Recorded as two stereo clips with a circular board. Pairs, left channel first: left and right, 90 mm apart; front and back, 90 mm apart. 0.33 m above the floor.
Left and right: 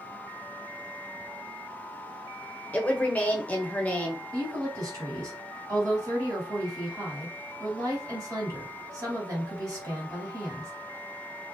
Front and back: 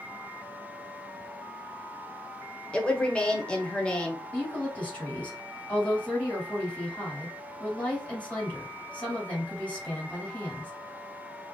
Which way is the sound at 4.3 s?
65° right.